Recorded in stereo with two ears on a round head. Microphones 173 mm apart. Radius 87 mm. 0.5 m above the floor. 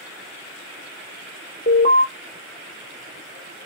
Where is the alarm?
40° left (ahead or behind), 1.6 m.